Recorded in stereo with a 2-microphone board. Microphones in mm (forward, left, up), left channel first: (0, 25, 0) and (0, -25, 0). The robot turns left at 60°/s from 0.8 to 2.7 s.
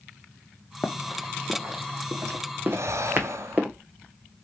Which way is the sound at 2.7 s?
70° right (ahead or behind).